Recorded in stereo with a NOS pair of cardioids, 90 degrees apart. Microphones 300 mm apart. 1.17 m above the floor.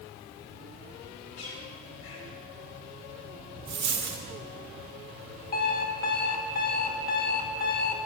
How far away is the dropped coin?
About 2 m.